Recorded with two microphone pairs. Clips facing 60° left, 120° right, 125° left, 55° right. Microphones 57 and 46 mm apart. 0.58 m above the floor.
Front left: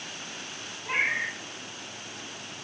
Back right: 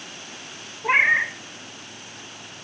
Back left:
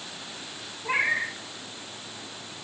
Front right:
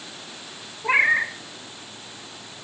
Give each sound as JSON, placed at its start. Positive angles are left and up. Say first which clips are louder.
{"t": 0.8, "sound": "a cat meowing", "louder": "back right 9 dB, front right 6 dB", "azimuth_deg": -105, "distance_m": 0.7}